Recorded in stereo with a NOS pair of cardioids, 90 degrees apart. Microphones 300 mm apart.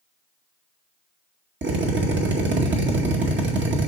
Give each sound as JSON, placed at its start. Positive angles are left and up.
{"t": 1.6, "sound": "a drill", "azimuth_deg": -40, "distance_m": 2.0}